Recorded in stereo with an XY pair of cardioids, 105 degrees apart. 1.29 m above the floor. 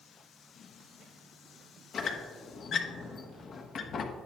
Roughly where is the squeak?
Ahead left.